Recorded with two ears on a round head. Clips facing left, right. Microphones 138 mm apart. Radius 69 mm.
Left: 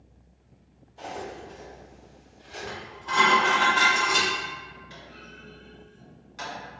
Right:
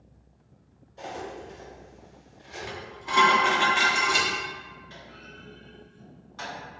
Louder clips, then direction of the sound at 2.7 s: Even; 15° right (ahead or behind).